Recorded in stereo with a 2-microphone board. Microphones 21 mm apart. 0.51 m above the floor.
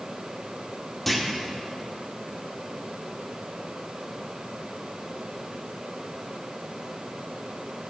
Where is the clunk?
10° left (ahead or behind), 0.9 m.